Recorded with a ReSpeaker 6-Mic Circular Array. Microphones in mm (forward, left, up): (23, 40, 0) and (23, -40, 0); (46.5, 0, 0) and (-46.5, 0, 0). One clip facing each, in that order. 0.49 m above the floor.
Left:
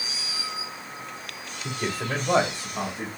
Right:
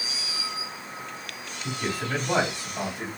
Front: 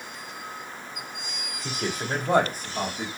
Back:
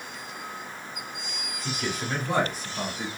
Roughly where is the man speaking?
Ahead left.